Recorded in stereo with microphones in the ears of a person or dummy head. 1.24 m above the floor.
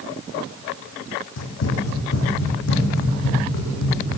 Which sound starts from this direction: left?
Running footsteps, at 1.4 s.